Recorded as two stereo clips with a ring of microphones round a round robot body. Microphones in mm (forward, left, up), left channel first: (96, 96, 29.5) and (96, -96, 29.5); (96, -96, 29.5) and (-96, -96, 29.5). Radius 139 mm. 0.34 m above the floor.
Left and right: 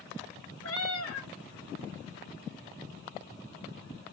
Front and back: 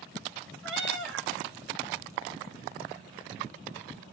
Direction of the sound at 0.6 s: 130° left.